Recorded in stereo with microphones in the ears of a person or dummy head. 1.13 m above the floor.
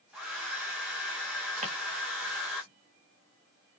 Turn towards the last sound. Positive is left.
turn(degrees=-40)  # may be behind; listen again after turning